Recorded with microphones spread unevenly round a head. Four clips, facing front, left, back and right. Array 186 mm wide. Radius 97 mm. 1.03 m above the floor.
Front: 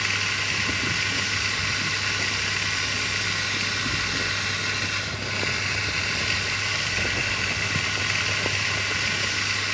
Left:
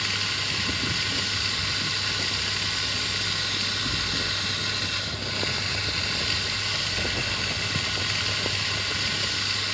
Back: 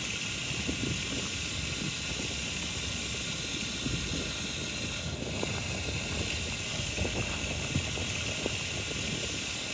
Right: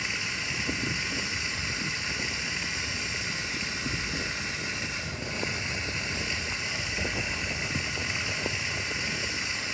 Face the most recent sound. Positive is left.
turn(degrees=20)